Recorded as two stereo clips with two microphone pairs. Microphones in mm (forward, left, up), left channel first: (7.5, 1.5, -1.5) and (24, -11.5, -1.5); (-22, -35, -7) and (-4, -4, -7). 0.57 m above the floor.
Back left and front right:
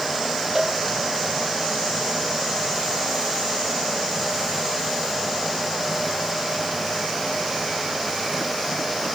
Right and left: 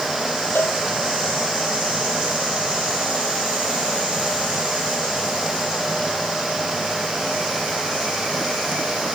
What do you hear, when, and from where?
0.6 s a cowbell: 120° right